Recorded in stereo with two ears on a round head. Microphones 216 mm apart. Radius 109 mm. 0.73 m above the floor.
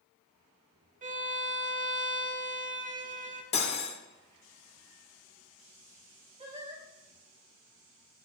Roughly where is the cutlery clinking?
Left.